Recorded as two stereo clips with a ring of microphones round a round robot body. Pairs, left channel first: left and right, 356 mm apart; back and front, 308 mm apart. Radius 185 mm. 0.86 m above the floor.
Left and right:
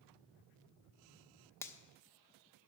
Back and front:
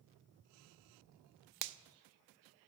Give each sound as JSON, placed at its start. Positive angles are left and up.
{"t": 1.6, "sound": "a finger snap", "azimuth_deg": 5, "distance_m": 0.6}